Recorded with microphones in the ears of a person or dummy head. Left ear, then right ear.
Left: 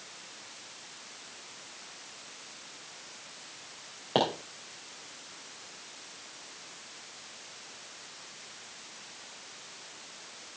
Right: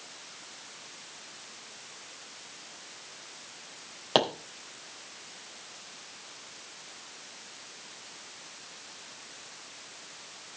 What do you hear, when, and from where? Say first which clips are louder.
4.2 s a pop: right 2 dB; 40° right (ahead or behind), 3 m